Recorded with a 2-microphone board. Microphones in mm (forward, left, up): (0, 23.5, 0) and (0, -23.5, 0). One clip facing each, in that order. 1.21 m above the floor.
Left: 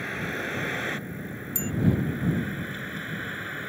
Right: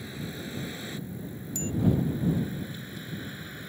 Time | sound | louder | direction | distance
0.0 | a vehicle | left 8 dB | 55° left (ahead or behind) | ?
1.6 | a bicycle bell | left 1 dB | 25° left (ahead or behind) | ?